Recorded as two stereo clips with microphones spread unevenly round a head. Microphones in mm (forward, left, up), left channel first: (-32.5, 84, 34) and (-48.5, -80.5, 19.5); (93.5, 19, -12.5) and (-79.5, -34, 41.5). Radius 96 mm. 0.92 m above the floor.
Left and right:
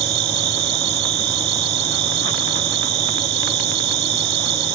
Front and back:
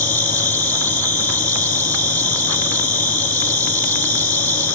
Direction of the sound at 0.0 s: 65° right.